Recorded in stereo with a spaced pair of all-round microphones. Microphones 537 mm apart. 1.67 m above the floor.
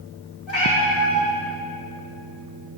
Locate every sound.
0.5 s a cat meowing: 55° left (ahead or behind), 1.9 m